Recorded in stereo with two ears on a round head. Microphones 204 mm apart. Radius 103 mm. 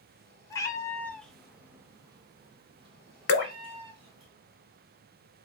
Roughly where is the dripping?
Left.